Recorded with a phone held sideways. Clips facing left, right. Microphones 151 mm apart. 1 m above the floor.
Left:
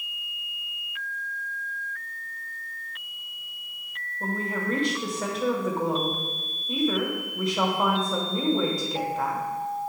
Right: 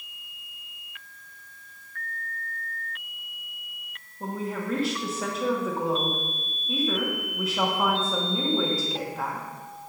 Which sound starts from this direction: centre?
A woman speaking, at 4.2 s.